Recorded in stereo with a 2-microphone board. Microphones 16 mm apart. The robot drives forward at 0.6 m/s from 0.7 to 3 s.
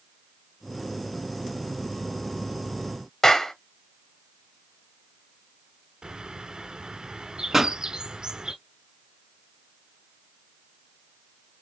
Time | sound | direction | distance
3.2 | a clap | 40° left (ahead or behind) | 0.9 m
6.0 | a bird | 55° right (ahead or behind) | 0.9 m
7.5 | a pop | 20° right (ahead or behind) | 1.1 m